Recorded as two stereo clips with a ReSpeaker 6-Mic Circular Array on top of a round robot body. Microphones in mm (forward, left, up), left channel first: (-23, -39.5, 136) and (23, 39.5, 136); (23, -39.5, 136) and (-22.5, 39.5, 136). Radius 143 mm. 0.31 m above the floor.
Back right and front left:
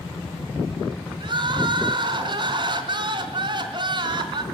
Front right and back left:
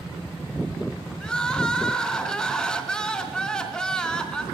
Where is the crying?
25° left, 3 m.